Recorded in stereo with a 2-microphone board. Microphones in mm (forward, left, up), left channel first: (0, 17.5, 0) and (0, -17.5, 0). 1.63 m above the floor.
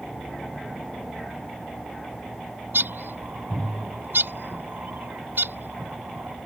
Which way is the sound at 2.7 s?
75° right (ahead or behind).